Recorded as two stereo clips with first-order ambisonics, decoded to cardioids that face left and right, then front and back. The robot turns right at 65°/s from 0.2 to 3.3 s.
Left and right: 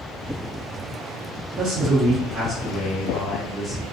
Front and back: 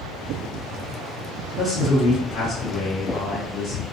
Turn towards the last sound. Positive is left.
turn(degrees=25)